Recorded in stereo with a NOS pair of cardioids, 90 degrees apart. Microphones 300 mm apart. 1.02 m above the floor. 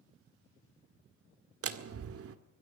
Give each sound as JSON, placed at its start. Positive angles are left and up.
{"t": 1.6, "sound": "a door slam", "azimuth_deg": -50, "distance_m": 1.9}